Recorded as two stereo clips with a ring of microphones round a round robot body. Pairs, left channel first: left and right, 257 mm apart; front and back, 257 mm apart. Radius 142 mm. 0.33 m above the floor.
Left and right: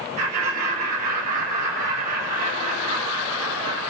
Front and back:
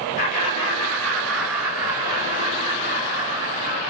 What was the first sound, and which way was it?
Laughter, 45° right.